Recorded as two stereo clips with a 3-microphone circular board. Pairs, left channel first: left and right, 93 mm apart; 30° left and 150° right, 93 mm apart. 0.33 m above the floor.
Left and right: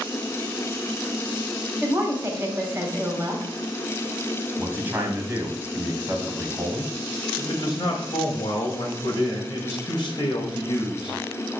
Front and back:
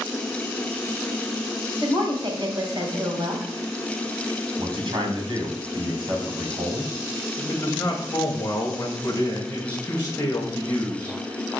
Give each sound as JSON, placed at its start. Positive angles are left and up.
{"t": 1.8, "sound": "a woman speaking", "azimuth_deg": -150, "distance_m": 2.0}
{"t": 4.6, "sound": "a man speaking", "azimuth_deg": -155, "distance_m": 2.5}
{"t": 7.4, "sound": "a man speaking", "azimuth_deg": 90, "distance_m": 1.6}